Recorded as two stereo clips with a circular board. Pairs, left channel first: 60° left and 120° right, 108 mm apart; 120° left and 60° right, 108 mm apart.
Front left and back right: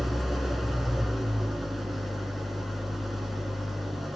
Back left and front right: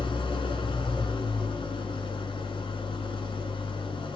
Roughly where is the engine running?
Behind left.